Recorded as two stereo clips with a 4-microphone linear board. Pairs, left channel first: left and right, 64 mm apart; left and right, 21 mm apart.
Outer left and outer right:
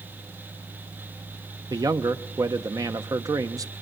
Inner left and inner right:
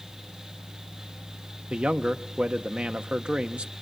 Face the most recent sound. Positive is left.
turn(degrees=-70)  # may be behind; listen again after turning